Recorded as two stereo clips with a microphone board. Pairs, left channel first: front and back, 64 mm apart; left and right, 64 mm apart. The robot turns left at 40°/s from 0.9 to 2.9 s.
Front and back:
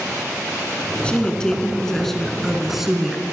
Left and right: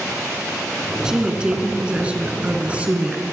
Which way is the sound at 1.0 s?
35° right.